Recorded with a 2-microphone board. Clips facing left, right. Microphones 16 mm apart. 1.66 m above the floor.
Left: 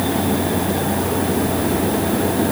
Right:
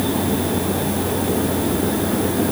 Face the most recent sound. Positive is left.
No sound to turn to.